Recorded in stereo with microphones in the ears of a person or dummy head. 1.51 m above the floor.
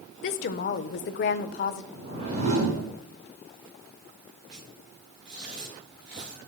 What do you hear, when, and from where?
0.2 s a woman speaking: 50° left (ahead or behind), 0.6 m
1.9 s a whoosh: 40° right (ahead or behind), 3 m
4.5 s tearing paper: 25° right (ahead or behind), 5.5 m